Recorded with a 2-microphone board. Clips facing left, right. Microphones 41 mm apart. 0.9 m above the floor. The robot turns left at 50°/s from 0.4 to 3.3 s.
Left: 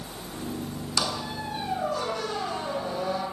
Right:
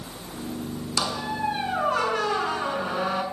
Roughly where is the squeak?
Ahead.